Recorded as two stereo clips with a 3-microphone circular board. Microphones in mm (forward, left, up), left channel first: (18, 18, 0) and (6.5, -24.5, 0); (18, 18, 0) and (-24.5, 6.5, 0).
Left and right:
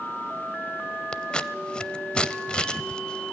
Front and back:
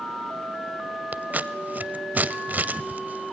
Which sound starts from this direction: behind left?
Scissors, at 1.1 s.